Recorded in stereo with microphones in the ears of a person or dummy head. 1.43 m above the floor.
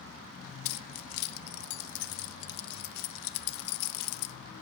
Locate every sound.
0.7 s keys jangling: 55° left (ahead or behind), 0.6 m